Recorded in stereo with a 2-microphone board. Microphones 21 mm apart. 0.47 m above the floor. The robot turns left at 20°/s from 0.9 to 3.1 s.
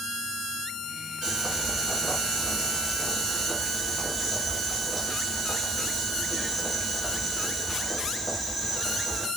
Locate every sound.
1.2 s boiling: 135° right, 1.3 m; by 9.3 s 170° right, 1.3 m